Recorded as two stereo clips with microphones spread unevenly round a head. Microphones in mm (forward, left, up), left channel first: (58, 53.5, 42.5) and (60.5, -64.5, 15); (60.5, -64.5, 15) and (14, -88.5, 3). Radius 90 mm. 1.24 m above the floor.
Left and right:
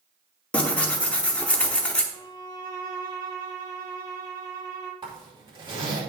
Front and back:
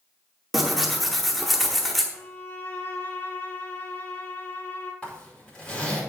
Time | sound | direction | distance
0.5 | tearing paper | 75° left | 0.8 m
2.1 | a violin | 25° right | 4 m
5.0 | a zipper | 40° right | 5 m